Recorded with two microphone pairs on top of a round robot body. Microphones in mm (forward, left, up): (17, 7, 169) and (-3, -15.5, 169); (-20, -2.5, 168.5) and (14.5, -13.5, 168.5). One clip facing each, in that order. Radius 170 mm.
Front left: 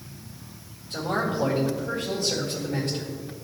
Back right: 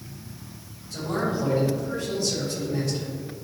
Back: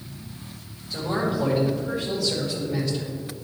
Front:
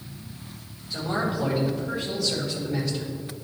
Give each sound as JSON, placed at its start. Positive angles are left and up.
{"t": 0.9, "sound": "a man speaking", "azimuth_deg": 80, "distance_m": 1.9}